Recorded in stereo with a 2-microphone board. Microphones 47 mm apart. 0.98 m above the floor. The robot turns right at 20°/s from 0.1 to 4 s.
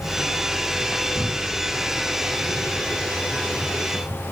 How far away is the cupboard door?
About 3 m.